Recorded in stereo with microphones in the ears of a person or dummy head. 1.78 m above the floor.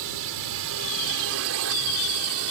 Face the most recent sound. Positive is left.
turn(degrees=-80)